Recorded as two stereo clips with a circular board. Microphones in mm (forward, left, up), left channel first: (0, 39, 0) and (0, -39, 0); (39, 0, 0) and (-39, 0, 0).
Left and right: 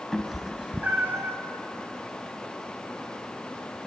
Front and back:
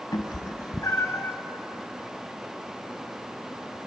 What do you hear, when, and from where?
0.1 s a cat meowing: 5° left, 0.8 m; by 1.4 s 50° right, 0.8 m